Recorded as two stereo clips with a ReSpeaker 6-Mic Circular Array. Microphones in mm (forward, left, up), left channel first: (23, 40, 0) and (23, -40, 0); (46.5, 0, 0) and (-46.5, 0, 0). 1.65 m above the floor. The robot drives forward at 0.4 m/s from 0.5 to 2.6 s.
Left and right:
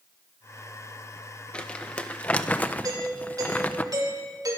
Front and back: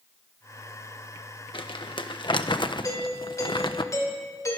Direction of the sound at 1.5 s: 15° left.